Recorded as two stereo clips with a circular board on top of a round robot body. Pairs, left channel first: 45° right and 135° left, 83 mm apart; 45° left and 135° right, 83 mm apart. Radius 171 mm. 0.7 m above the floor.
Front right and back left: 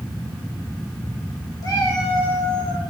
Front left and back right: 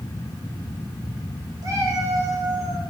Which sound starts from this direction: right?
A cat meowing, at 1.6 s.